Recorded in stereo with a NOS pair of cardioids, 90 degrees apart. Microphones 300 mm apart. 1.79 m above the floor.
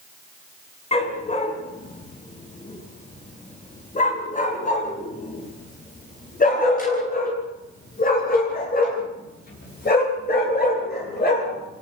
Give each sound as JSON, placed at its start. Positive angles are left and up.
{"t": 0.9, "sound": "a dog barking", "azimuth_deg": 20, "distance_m": 8.0}